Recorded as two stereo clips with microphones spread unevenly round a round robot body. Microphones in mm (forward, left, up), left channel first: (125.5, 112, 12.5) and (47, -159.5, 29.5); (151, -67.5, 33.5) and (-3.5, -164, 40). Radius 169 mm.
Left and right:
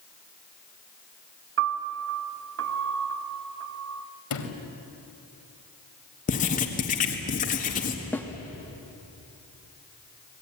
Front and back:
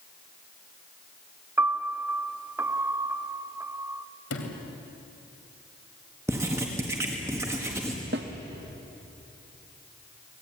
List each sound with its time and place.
1.6 s a piano: 75° right, 0.7 m
4.3 s a sliding door: 50° left, 3 m
6.3 s writing: 135° left, 1.6 m
8.1 s a snare drum: 160° left, 0.7 m